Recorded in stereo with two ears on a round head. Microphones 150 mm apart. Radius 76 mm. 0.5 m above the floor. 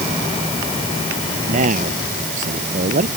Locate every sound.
1.5 s a man speaking: 50° right (ahead or behind)